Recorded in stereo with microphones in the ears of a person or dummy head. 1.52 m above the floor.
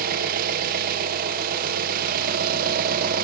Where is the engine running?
55° right (ahead or behind), 1.0 m.